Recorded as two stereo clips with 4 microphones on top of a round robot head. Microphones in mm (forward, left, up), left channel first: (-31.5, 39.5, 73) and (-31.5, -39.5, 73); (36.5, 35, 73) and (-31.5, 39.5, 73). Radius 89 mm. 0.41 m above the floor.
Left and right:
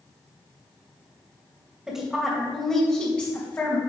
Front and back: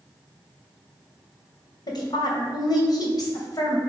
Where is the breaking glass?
No breaking glass in this recording.